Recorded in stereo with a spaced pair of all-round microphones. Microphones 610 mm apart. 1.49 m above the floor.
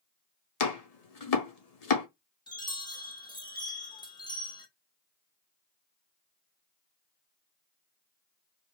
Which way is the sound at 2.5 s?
10° left (ahead or behind).